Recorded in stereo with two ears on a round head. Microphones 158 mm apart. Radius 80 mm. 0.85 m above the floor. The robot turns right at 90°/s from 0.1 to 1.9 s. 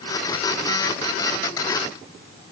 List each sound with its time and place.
Only background noise.